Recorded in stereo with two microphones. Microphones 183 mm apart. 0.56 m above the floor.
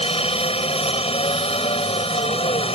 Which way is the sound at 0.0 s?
30° left (ahead or behind).